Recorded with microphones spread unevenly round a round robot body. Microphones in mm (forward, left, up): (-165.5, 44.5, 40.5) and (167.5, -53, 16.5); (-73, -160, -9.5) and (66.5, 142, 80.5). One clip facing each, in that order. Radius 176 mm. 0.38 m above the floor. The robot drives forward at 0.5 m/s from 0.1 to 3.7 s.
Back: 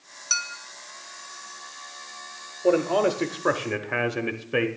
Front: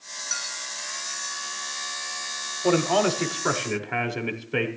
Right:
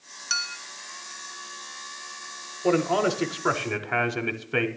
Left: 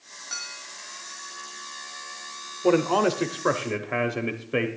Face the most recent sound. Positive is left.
turn(degrees=-125)